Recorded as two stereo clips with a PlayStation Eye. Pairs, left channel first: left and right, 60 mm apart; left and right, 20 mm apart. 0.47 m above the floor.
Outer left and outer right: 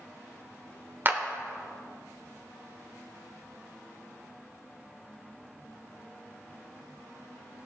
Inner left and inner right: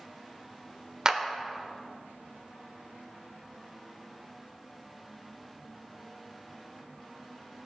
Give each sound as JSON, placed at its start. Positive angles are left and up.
{"t": 1.1, "sound": "a clap", "side_deg": -35, "distance_m": 0.9}